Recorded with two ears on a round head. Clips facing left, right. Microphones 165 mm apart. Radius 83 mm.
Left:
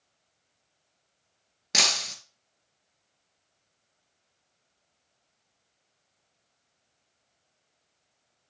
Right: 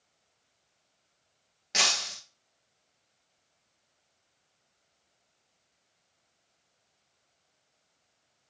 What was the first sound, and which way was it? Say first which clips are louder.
Breaking glass: left 2 dB; 60° left (ahead or behind).